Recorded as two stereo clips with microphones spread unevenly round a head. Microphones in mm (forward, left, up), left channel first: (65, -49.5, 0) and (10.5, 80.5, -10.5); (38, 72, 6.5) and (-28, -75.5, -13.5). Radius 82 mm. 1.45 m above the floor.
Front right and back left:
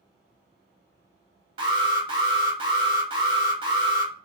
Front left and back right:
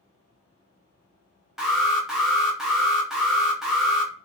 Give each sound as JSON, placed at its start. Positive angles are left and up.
{"t": 1.6, "sound": "an alarm", "azimuth_deg": 165, "distance_m": 0.9}